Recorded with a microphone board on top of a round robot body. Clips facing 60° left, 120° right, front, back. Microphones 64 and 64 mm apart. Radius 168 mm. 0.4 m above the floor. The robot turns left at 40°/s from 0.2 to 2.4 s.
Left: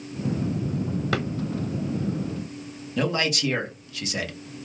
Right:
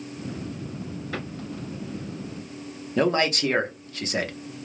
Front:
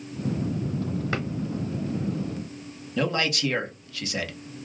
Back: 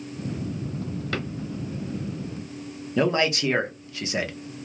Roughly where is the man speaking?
Behind right.